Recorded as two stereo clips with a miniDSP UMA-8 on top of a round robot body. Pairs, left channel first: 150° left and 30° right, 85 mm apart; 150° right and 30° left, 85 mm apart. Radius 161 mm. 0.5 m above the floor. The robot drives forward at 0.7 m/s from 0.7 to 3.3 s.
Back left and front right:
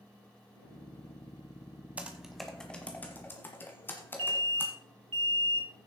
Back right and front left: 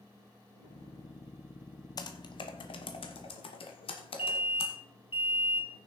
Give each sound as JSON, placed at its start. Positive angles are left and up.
{"t": 2.0, "sound": "typing on a keyboard", "azimuth_deg": -105, "distance_m": 0.9}
{"t": 4.2, "sound": "an alarm", "azimuth_deg": -35, "distance_m": 2.0}